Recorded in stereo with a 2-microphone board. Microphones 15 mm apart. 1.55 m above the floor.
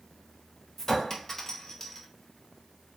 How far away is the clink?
About 0.6 m.